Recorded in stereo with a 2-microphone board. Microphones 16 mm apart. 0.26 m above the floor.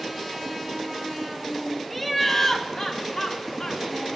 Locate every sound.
1.9 s laughter: 10° left (ahead or behind), 1.2 m; by 4.2 s 50° left (ahead or behind), 2 m